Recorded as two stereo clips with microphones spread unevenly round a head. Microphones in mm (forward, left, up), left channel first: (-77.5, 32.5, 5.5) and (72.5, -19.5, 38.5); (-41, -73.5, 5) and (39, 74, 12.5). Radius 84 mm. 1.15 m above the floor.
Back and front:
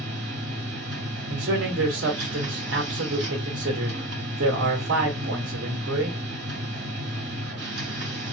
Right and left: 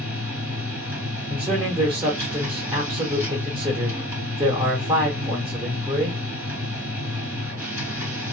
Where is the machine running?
15° right, 2 m.